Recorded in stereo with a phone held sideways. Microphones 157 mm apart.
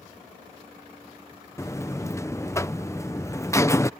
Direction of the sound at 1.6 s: 20° left (ahead or behind).